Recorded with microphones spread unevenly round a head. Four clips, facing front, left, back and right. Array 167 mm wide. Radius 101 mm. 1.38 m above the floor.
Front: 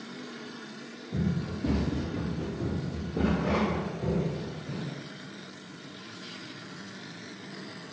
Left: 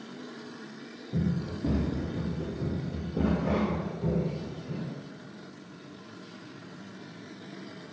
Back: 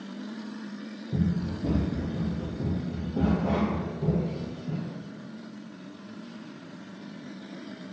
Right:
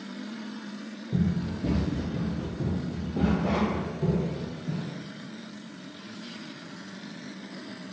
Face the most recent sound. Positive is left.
turn(degrees=-95)